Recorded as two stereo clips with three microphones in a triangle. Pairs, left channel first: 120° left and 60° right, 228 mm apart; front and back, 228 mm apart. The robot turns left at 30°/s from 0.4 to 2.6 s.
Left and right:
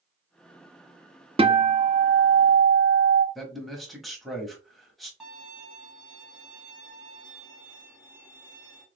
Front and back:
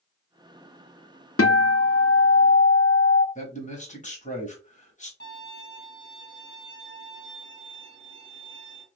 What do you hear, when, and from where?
1.4 s a guitar: 10° left, 0.6 m; by 3.2 s 30° right, 0.6 m
3.4 s a man speaking: 30° left, 1.2 m
5.2 s a violin: 35° left, 2.0 m